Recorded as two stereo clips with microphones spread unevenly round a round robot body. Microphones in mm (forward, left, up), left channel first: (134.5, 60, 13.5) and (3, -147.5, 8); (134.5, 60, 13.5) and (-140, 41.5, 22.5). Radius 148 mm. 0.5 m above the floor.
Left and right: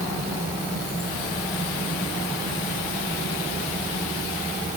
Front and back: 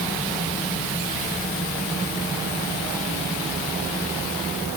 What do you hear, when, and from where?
Only background noise.